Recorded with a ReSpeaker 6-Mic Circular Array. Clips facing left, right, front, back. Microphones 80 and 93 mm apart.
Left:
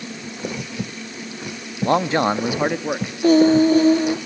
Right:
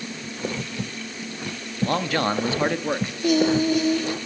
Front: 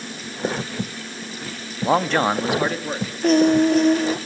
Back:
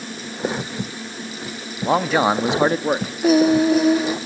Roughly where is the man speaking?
Left.